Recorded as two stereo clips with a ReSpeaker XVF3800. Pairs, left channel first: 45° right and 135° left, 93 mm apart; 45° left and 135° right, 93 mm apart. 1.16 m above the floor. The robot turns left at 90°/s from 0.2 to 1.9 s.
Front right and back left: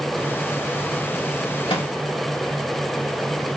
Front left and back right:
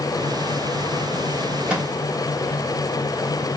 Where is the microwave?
55° right, 1.4 m; by 1.9 s 75° right, 1.4 m.